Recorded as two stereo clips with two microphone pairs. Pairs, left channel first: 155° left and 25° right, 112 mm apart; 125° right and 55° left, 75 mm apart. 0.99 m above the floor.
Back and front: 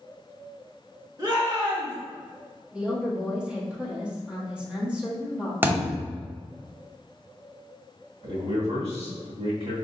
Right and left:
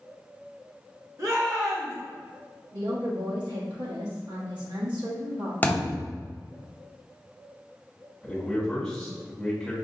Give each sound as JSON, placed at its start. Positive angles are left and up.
{"t": 1.2, "sound": "a shout", "azimuth_deg": 25, "distance_m": 1.7}
{"t": 2.7, "sound": "a woman speaking", "azimuth_deg": 60, "distance_m": 1.6}
{"t": 5.6, "sound": "a thud", "azimuth_deg": -80, "distance_m": 0.9}
{"t": 8.2, "sound": "a man speaking", "azimuth_deg": -40, "distance_m": 1.5}